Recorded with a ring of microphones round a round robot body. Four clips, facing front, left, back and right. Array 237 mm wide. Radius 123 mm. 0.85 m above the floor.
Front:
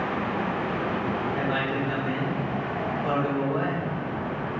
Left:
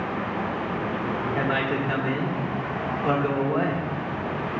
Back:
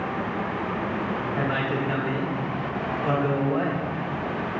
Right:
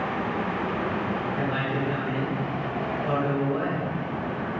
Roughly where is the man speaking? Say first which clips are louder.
Left 2 dB, back 1 dB; left.